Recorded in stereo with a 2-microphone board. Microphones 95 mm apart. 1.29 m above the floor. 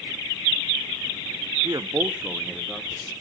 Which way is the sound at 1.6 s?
50° right (ahead or behind).